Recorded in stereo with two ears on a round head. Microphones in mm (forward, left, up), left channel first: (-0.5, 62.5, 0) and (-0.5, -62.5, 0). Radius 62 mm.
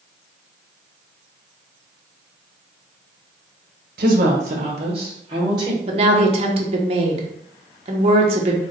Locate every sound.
4.0 s a woman speaking: 65° right (ahead or behind), 1.2 m; by 5.8 s 30° right (ahead or behind), 1.8 m
5.9 s a woman speaking: 45° right (ahead or behind), 0.8 m